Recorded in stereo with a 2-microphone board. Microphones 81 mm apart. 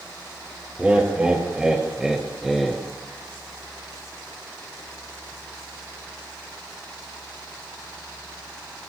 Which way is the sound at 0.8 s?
15° right (ahead or behind).